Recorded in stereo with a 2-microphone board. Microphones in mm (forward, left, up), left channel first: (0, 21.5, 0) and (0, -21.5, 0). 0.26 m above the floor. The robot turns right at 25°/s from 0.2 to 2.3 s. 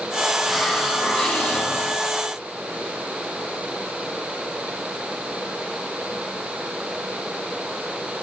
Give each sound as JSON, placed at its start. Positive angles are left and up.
{"t": 0.4, "sound": "a hiss", "azimuth_deg": 0, "distance_m": 7.0}